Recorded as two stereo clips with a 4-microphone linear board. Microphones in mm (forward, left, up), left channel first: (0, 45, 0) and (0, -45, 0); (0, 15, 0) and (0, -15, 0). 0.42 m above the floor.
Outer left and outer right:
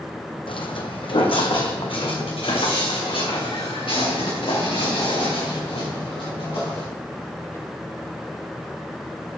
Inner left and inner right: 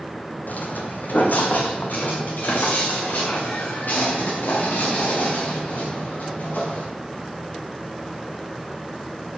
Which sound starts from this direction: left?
Footsteps, at 0.5 s.